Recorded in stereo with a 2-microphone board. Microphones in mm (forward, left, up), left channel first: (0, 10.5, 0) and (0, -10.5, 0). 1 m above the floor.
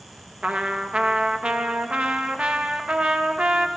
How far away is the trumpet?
About 0.5 m.